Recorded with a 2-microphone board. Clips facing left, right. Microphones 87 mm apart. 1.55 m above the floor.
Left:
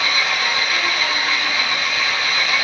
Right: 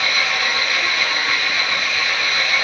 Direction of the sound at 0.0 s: 30° left (ahead or behind).